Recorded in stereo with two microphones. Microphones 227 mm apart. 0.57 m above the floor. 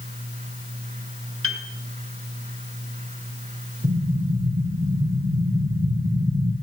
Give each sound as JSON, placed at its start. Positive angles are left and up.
{"t": 1.4, "sound": "a piano", "side_deg": -65, "distance_m": 1.8}
{"t": 3.8, "sound": "an explosion", "side_deg": -50, "distance_m": 9.0}